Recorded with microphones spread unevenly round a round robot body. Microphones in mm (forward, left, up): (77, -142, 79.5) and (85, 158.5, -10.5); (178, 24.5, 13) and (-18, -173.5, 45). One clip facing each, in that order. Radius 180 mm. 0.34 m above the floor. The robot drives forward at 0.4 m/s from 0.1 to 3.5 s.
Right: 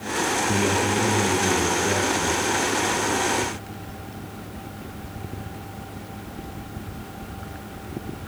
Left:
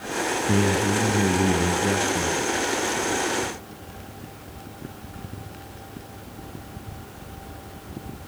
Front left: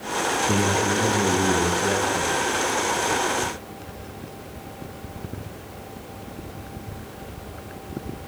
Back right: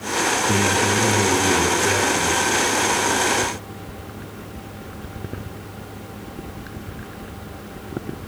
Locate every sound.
0.5 s a man speaking: 130° left, 3.5 m; by 2.4 s 135° left, 4 m